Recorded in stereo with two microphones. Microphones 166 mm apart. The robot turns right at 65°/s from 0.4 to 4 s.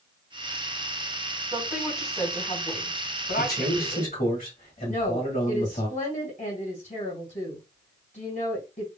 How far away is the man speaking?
About 1.8 m.